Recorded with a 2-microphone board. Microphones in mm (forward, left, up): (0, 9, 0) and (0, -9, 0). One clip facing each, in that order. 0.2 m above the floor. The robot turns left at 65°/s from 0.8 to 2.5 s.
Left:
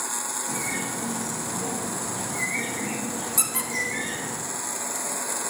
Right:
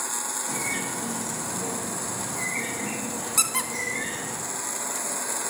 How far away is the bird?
About 2.5 m.